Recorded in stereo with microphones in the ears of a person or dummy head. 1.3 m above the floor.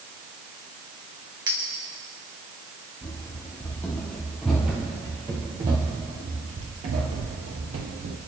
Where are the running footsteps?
15° left (ahead or behind), 2.5 m; by 8.2 s 50° right (ahead or behind), 2 m.